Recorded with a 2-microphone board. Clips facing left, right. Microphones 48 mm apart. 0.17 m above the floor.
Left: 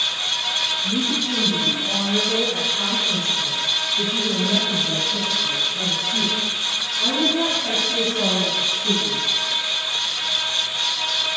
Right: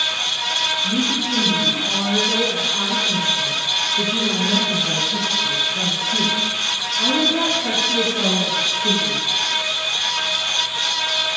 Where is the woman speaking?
10° right (ahead or behind), 2.5 m; by 9.2 s 45° right (ahead or behind), 3 m.